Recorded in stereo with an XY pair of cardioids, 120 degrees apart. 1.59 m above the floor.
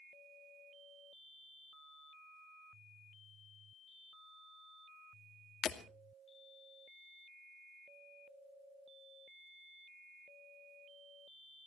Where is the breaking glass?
55° left, 2.5 m.